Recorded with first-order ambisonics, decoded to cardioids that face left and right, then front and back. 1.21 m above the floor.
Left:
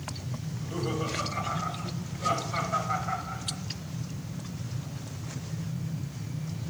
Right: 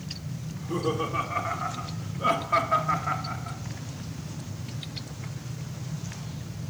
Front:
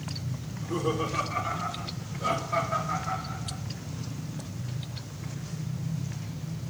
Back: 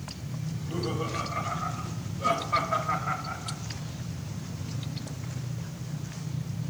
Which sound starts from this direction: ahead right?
Laughter, at 0.5 s.